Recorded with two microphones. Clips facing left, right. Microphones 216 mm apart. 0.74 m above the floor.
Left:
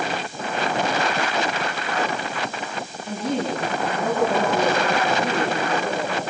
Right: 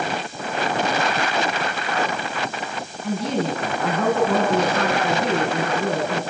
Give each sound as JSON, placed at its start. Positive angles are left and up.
{"t": 3.0, "sound": "a woman speaking", "side_deg": -80, "distance_m": 6.5}